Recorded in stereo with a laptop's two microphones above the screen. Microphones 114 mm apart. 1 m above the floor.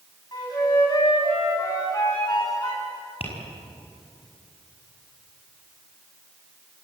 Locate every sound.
0.3 s a flute: 40° left (ahead or behind), 9 m
3.2 s tapping: 65° left (ahead or behind), 6 m